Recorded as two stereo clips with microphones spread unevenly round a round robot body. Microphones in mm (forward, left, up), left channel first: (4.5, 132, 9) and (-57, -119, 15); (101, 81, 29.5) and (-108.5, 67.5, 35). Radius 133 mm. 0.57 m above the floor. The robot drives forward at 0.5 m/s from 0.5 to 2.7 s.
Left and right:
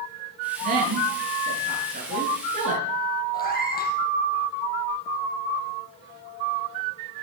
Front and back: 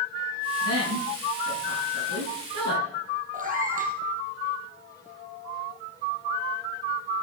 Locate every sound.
0.6 s a woman speaking: 165° right, 9 m; by 2.9 s 170° right, 10 m
3.3 s a cat meowing: 135° left, 4 m